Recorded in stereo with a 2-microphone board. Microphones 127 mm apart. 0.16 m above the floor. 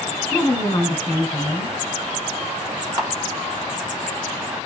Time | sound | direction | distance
0.3 | a woman speaking | 20° left (ahead or behind) | 1.2 m
3.0 | a camera shutter | 35° right (ahead or behind) | 1.4 m